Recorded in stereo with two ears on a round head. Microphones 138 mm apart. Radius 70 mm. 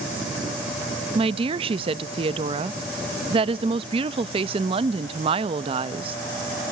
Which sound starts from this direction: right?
A woman speaking, at 1.1 s.